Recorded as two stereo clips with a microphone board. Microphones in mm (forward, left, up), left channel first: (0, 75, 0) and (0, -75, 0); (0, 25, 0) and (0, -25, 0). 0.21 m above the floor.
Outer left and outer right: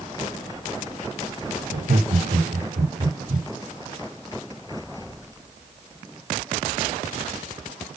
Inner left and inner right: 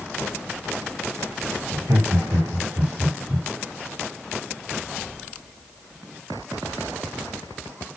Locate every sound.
1.7 s laughter: 75° right (ahead or behind), 4.5 m